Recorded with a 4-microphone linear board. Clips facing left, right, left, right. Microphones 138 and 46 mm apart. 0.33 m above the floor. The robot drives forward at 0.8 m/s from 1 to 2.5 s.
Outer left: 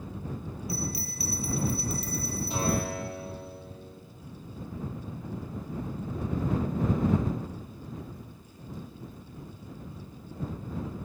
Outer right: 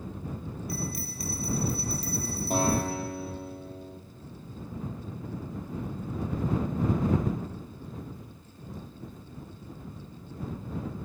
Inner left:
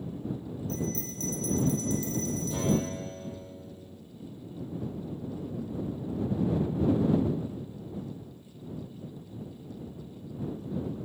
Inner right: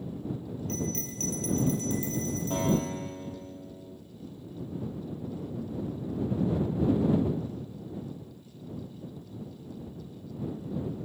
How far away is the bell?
About 1.6 m.